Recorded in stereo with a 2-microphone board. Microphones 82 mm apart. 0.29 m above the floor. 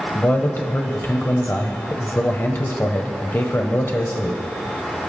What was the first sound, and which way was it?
A man speaking, 30° left (ahead or behind).